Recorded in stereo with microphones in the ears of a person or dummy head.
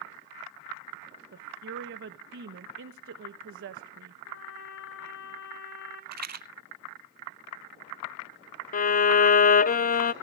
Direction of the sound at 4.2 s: 75° left (ahead or behind).